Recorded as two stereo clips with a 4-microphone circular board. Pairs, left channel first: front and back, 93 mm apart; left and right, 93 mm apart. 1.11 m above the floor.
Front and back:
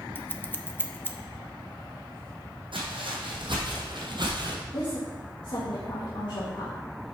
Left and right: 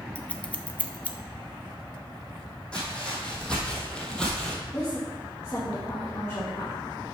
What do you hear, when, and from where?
0.1 s scissors: 35° left, 0.7 m
2.7 s footsteps: 170° left, 3 m
4.7 s a woman speaking: 30° left, 1.5 m